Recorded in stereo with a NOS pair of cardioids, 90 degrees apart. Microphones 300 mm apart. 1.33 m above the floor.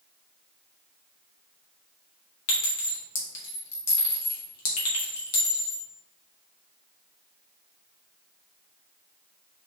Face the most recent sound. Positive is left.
turn(degrees=65)